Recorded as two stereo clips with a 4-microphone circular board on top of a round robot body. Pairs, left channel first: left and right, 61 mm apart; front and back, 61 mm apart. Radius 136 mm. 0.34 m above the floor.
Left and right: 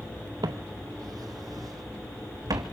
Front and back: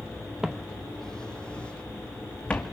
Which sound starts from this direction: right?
Footsteps, at 0.4 s.